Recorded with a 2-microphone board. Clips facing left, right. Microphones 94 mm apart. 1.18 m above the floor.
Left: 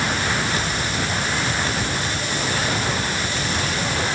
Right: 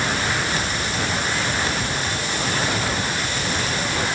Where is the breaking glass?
No breaking glass in this recording.